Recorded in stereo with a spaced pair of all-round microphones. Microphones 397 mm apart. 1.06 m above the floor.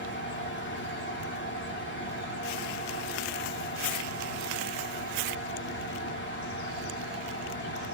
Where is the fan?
30° left (ahead or behind), 0.7 m.